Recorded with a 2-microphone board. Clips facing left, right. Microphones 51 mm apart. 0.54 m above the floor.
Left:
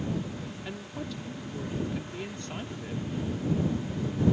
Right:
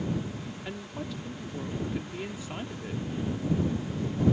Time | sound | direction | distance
0.7 | a woman speaking | 5° right (ahead or behind) | ?